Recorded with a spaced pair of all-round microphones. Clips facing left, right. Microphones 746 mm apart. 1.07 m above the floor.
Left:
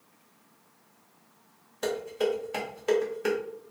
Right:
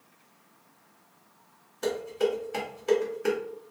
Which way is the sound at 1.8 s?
20° left (ahead or behind).